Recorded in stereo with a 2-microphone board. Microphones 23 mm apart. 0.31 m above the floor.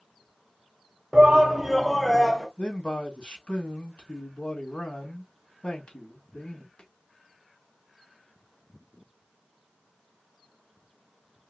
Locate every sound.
1.1 s a shout: 35° right (ahead or behind), 1.1 m; by 2.5 s 30° left (ahead or behind), 1.1 m
2.6 s a man speaking: 60° left (ahead or behind), 2.5 m